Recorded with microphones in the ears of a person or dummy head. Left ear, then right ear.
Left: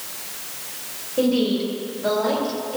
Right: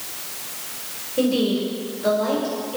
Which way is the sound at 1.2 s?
10° left (ahead or behind).